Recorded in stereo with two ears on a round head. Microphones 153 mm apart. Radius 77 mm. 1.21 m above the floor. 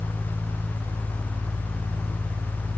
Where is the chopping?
No chopping in this recording.